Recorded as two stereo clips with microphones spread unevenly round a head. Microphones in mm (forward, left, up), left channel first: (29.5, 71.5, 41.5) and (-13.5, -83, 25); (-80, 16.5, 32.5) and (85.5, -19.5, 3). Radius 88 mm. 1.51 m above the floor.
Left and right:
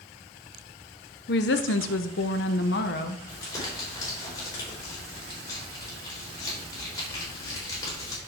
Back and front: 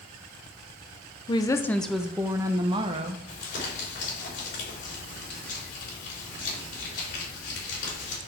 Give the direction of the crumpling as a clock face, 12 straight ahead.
7 o'clock.